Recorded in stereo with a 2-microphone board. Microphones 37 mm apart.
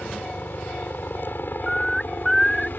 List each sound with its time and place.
0.0 s a helicopter: 65° left (ahead or behind); by 2.8 s 60° left (ahead or behind)
1.7 s a bird: 5° left (ahead or behind)